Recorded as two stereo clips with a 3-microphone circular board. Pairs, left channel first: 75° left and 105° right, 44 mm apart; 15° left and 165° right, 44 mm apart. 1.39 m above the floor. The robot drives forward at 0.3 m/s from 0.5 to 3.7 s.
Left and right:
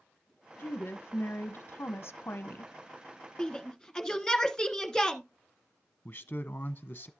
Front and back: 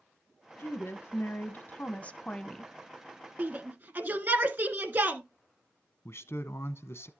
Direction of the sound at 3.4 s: 155° left.